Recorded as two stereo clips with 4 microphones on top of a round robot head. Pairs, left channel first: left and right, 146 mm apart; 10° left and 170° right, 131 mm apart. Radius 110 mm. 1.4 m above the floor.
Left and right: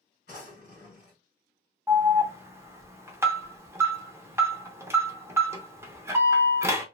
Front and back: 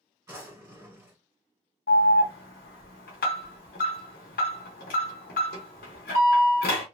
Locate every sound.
0.3 s a drawer: 130° left, 1.9 m
1.9 s an alarm: 20° right, 0.6 m